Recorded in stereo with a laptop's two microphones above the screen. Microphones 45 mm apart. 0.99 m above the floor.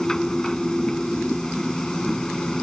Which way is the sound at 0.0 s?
10° left (ahead or behind).